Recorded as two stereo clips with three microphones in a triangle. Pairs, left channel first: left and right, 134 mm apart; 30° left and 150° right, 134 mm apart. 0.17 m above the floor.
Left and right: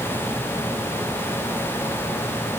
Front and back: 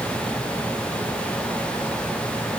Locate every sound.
Only background noise.